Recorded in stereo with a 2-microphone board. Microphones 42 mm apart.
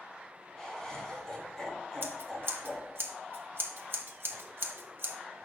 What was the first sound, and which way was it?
Laughter, 15° left (ahead or behind).